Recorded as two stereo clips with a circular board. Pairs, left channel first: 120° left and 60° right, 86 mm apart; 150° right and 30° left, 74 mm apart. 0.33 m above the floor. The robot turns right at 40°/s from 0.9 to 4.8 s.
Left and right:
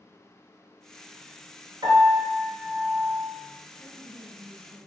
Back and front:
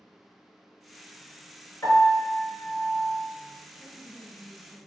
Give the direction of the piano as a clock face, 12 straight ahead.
3 o'clock.